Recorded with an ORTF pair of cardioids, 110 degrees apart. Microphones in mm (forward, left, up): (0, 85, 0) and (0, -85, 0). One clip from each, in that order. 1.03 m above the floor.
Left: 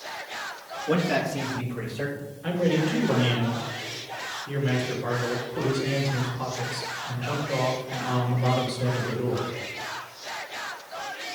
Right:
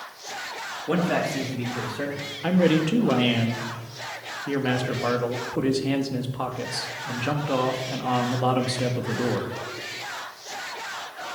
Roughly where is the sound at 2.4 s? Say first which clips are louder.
Right 3 dB; ahead right.